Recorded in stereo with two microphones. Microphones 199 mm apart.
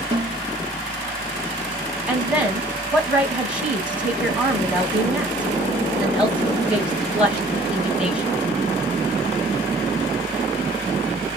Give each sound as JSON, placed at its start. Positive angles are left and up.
{"t": 0.1, "sound": "a snare drum", "side_deg": -30, "distance_m": 1.5}
{"t": 2.1, "sound": "a woman speaking", "side_deg": -5, "distance_m": 2.0}